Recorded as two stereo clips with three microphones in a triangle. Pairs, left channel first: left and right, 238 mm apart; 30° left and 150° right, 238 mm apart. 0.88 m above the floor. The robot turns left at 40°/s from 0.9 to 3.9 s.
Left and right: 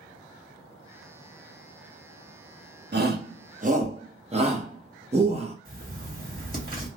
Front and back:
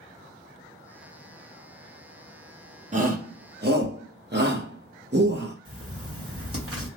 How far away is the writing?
About 1.5 m.